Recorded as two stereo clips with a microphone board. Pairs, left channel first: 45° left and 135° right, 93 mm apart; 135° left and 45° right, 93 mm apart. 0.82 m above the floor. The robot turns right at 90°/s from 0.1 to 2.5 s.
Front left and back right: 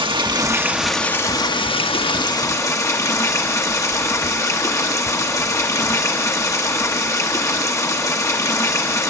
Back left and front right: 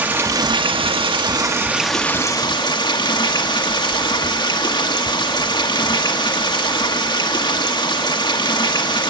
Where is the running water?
115° right, 1.1 m; by 9.1 s 100° left, 1.1 m.